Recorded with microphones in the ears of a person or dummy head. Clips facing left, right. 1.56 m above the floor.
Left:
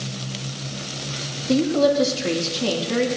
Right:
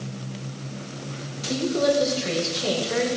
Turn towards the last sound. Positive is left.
turn(degrees=75)  # may be behind; listen again after turning